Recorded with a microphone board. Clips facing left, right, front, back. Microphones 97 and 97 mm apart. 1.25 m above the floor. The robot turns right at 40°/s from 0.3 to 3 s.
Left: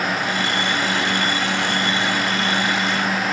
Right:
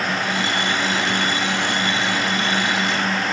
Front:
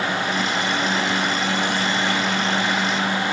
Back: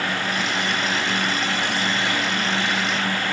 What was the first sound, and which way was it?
Only background noise.